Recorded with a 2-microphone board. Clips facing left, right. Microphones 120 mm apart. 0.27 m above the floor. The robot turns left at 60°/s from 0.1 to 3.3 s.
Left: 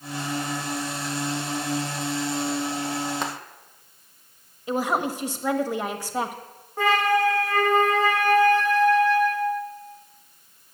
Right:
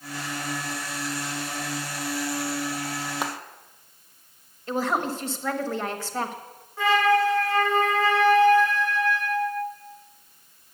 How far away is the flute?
About 3 m.